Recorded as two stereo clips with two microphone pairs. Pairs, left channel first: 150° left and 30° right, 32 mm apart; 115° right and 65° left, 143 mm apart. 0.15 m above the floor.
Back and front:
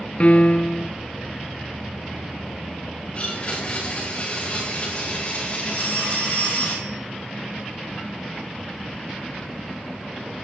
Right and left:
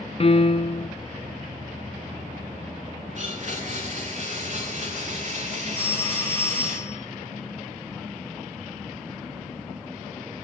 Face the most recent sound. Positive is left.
turn(degrees=-40)